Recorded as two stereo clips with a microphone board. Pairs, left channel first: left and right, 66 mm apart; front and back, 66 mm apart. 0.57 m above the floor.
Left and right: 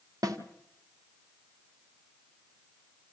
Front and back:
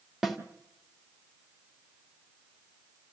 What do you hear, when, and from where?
0.2 s a snare drum: 95° right, 2.5 m